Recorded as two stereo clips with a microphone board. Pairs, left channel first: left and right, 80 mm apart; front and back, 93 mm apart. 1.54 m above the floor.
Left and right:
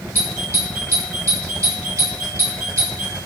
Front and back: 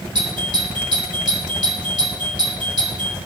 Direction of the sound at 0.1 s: 145° right.